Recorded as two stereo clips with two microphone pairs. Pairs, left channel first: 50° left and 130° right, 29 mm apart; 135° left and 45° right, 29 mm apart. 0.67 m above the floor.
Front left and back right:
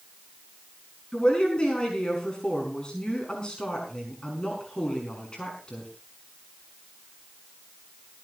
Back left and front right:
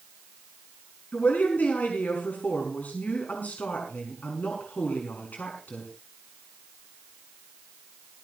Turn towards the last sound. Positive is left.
turn(degrees=110)